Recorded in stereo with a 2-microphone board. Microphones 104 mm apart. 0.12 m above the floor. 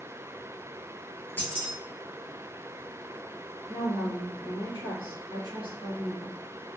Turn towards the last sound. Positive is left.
turn(degrees=-55)  # may be behind; listen again after turning